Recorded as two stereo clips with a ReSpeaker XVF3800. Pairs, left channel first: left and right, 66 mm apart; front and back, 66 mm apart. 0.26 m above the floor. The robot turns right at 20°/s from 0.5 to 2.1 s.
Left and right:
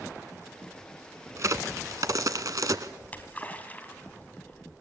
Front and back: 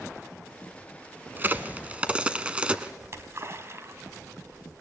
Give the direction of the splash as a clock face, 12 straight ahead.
7 o'clock.